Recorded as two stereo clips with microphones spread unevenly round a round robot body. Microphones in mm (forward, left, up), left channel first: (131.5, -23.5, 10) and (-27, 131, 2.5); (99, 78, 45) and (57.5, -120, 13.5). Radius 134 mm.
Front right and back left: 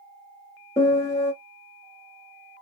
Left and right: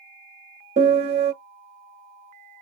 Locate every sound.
0.8 s a piano: 120° right, 0.6 m